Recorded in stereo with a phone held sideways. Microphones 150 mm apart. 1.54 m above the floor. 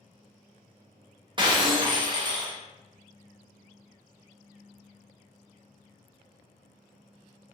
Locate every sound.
1.4 s breaking glass: 30° right (ahead or behind), 0.7 m